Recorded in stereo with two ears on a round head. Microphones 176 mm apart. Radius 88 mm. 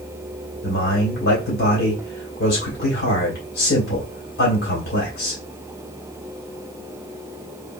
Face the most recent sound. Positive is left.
turn(degrees=50)  # may be behind; listen again after turning